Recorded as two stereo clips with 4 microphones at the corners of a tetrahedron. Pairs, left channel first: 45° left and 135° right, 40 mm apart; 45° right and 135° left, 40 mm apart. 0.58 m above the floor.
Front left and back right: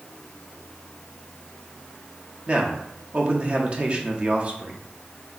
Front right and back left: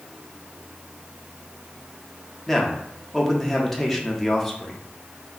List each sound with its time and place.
2.5 s a man speaking: 120° right, 0.7 m